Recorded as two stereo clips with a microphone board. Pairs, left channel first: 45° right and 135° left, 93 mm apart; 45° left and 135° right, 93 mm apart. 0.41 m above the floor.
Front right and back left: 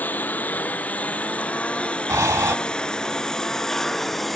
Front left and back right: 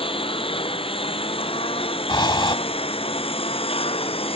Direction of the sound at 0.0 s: 25° left.